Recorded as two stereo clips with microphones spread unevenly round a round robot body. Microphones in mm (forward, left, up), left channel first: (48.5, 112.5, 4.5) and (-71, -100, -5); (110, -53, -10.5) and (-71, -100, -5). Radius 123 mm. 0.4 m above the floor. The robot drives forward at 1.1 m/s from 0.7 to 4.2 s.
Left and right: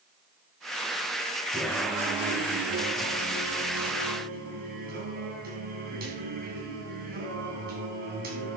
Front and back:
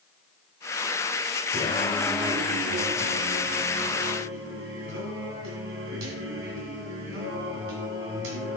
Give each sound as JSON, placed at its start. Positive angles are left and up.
{"t": 1.5, "sound": "singing", "azimuth_deg": -25, "distance_m": 1.0}